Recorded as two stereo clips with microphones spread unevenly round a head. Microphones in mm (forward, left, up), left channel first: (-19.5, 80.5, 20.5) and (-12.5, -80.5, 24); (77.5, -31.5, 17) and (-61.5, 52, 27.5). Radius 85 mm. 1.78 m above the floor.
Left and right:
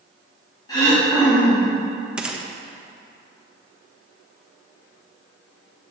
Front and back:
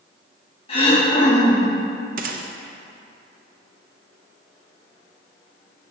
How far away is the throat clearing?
About 3 m.